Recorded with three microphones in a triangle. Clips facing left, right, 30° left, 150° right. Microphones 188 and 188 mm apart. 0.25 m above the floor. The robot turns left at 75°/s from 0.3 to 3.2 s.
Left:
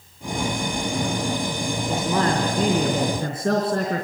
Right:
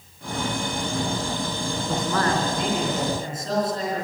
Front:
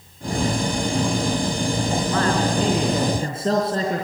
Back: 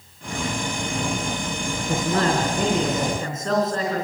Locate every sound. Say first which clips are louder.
1.9 s a man speaking: left 2 dB, back 3 dB; straight behind, 3.5 m; by 4.0 s 85° left, 3.5 m